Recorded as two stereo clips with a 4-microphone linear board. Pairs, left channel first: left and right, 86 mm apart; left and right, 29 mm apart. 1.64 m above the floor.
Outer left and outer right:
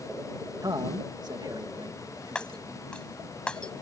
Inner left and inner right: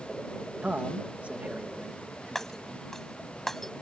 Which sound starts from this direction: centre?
Breaking glass, at 2.4 s.